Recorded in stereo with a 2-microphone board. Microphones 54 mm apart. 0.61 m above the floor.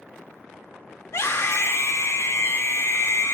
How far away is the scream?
About 1.7 m.